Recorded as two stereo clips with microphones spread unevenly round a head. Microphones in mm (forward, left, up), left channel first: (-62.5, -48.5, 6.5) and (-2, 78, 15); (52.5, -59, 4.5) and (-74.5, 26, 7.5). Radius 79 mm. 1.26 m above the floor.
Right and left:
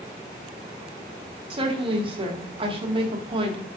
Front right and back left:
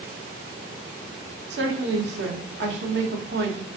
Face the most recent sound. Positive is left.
turn(degrees=120)